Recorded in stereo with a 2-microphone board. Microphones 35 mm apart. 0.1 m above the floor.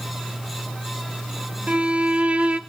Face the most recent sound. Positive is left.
turn(degrees=-40)  # may be behind; listen again after turning